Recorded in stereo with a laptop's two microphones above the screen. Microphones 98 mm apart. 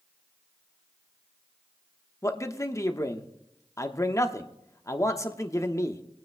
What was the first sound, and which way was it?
A man speaking, 30° left (ahead or behind).